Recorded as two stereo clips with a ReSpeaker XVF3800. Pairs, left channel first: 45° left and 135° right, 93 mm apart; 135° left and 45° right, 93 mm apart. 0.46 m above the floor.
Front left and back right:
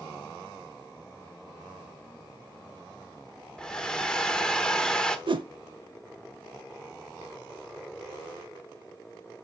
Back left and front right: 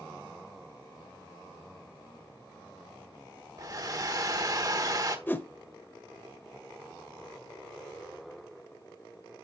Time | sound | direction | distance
3.6 | a hair dryer | 35° right | 1.0 m
5.3 | a whoosh | 155° right | 0.8 m